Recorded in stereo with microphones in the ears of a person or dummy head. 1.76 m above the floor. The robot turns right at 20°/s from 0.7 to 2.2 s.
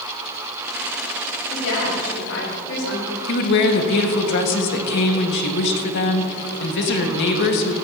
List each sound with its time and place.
1.5 s a woman speaking: 85° left, 4.5 m; by 3.2 s 80° left, 4.5 m
3.3 s a woman speaking: 60° left (ahead or behind), 1.6 m